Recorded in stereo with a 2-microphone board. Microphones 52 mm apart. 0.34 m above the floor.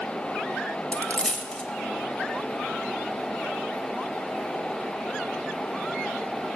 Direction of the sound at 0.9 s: 20° left (ahead or behind).